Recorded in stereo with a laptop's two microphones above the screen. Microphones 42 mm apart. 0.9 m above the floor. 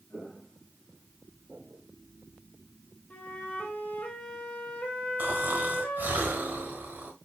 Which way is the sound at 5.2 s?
50° right (ahead or behind).